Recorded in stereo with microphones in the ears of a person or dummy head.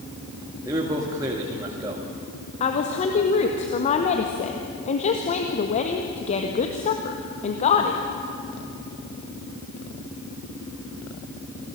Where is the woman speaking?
40° left (ahead or behind), 1.5 m.